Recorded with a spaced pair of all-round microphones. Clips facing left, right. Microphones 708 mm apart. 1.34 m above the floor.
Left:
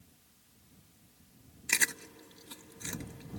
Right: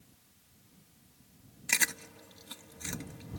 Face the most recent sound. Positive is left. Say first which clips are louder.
# left 1 dB
turn(degrees=-20)  # may be behind; listen again after turning